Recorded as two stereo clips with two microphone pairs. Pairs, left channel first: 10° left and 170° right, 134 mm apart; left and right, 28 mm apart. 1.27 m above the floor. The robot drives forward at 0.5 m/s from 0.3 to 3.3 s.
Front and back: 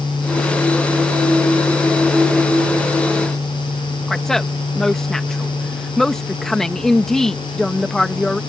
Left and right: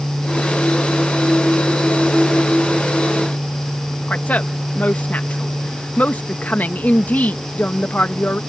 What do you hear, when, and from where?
4.1 s a woman speaking: 95° left